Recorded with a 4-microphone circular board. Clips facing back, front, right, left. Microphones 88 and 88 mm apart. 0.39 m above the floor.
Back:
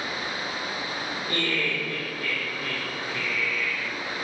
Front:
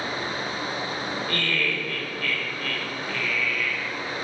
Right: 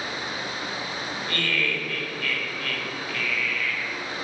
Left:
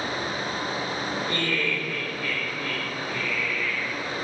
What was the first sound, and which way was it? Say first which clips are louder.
Laughter: back 2 dB, right 2 dB; 140° left.